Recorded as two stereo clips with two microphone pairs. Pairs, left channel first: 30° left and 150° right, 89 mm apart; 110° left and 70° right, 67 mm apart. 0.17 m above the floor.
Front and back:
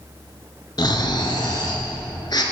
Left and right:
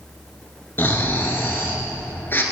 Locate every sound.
0.8 s snoring: 60° left, 1.0 m